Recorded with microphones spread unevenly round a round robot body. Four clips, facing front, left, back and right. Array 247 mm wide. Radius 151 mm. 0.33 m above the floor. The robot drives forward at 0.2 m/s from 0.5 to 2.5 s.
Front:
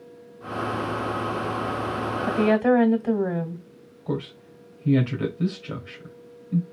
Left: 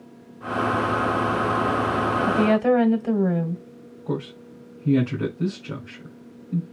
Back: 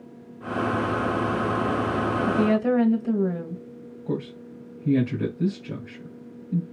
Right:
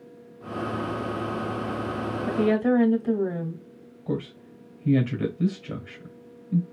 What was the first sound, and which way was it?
A woman speaking, 55° left.